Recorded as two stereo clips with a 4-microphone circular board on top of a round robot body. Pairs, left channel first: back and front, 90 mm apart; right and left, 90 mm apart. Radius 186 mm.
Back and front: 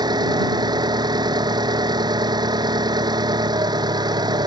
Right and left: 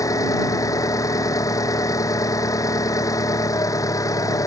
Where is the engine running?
40° right.